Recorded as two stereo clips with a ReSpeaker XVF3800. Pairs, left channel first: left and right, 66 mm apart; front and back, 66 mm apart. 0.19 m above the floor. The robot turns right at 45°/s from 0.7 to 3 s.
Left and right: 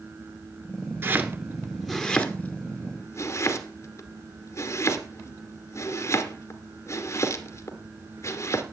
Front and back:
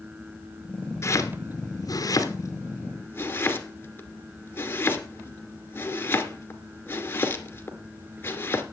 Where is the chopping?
35° right, 2 m; by 8.6 s 55° left, 2 m.